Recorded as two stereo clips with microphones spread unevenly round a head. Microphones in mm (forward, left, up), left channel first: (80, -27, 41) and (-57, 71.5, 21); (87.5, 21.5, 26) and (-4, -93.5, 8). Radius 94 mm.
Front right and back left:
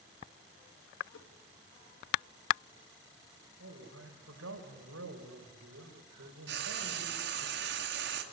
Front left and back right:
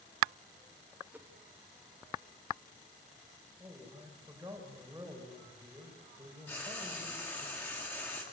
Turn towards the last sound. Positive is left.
turn(degrees=130)